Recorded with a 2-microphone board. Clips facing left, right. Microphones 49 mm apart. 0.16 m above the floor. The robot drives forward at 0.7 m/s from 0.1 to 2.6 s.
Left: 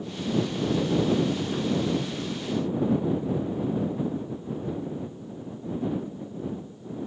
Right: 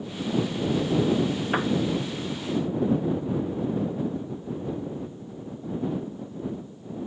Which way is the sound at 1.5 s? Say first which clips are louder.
Right 3 dB; 80° right.